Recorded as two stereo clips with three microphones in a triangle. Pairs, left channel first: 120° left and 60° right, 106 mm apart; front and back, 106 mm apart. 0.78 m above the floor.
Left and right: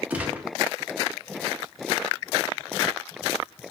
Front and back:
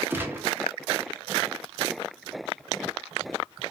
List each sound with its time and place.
0.1 s a gunshot: 125° right, 0.6 m